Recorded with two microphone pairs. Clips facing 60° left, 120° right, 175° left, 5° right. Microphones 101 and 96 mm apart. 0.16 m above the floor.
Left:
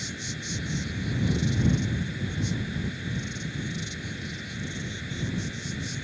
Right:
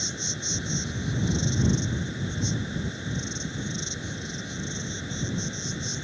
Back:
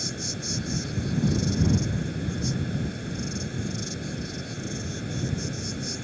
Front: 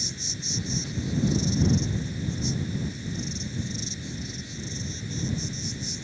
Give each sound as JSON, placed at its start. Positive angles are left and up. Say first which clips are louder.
{"t": 0.0, "sound": "an insect", "louder": "right 1 dB, back 5 dB", "azimuth_deg": 180}